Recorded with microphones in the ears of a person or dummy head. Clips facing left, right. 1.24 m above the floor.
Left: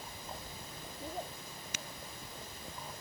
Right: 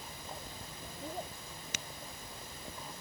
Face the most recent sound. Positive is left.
No sound to turn to.